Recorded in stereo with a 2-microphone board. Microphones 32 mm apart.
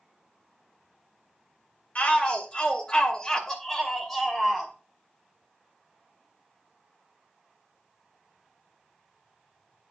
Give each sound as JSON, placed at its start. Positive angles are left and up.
{"t": 1.9, "sound": "a shout", "side_deg": 40, "distance_m": 2.0}